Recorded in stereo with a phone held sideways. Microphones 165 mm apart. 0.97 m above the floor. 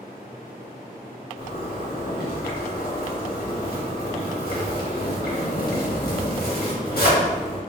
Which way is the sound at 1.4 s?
75° left (ahead or behind).